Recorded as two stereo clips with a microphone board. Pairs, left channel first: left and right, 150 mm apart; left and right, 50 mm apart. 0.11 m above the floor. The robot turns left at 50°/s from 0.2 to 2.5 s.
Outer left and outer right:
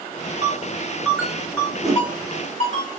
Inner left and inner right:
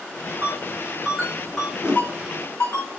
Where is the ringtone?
50° right (ahead or behind), 5.5 m; by 2.8 s 55° left (ahead or behind), 5.5 m.